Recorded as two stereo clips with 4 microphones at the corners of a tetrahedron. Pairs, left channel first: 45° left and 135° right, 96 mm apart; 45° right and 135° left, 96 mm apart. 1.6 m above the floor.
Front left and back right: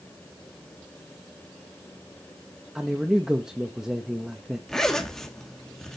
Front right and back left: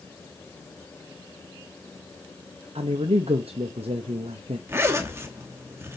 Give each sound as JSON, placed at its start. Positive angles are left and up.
{"t": 2.8, "sound": "a man speaking", "azimuth_deg": 140, "distance_m": 0.8}
{"t": 4.7, "sound": "a zipper", "azimuth_deg": 125, "distance_m": 1.1}